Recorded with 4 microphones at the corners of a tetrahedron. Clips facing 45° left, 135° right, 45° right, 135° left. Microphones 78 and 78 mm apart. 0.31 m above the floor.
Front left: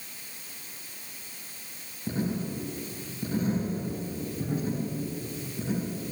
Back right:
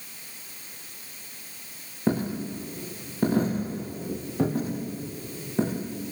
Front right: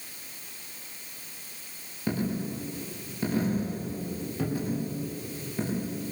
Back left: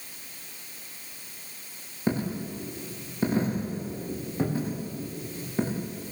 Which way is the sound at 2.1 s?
160° right.